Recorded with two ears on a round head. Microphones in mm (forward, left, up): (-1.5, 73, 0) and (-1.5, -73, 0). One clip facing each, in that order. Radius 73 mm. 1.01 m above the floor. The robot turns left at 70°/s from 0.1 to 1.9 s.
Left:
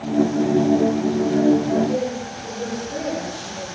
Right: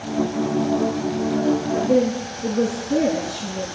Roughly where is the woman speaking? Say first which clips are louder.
Right 2 dB; right.